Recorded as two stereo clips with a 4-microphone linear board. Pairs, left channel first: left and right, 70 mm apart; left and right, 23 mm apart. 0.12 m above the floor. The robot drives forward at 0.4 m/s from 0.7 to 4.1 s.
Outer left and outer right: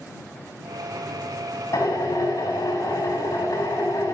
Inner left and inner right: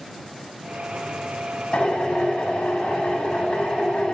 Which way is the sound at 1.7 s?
40° left (ahead or behind).